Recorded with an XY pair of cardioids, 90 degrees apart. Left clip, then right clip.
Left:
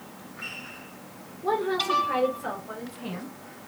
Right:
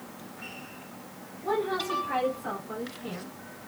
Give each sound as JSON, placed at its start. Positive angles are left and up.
{"t": 1.4, "sound": "a woman speaking", "azimuth_deg": 50, "distance_m": 3.5}